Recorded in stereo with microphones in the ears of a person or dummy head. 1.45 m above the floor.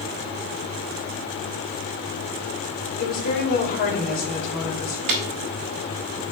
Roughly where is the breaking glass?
Right.